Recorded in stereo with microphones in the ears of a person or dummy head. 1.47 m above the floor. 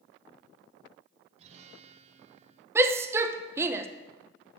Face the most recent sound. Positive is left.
turn(degrees=-15)  # may be behind; listen again after turning